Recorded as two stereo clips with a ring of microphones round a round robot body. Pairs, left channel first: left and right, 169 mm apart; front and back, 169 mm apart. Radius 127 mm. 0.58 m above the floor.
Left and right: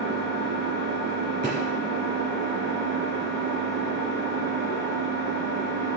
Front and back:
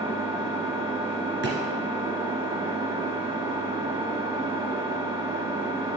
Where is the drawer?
165° right, 3 m.